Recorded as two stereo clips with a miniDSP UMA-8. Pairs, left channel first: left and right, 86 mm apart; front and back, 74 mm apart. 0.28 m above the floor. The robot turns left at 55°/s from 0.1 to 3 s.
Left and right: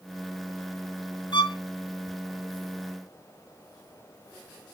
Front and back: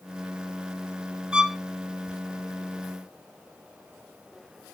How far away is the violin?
About 1.0 m.